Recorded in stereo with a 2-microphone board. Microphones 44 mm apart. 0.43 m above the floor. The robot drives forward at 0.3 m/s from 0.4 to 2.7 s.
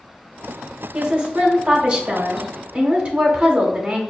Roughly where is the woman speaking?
Right.